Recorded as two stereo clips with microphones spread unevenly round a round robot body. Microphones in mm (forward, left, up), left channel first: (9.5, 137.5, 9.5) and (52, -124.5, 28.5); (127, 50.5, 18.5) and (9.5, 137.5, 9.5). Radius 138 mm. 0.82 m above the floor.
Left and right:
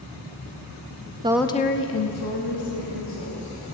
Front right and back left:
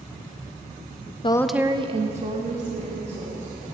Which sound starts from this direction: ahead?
A woman speaking, at 1.2 s.